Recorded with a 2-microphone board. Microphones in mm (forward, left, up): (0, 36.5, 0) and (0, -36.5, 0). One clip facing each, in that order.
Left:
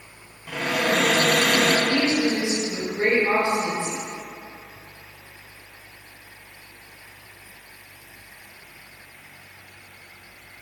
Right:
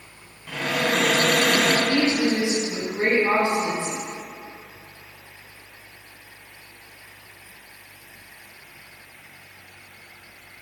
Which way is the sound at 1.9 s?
20° right (ahead or behind).